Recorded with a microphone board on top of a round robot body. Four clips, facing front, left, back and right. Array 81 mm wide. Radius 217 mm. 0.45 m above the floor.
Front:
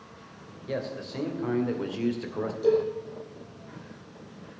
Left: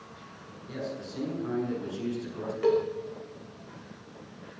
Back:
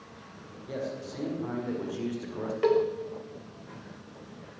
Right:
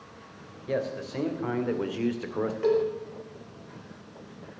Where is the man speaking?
70° right, 3 m; by 2.5 s 75° right, 2 m.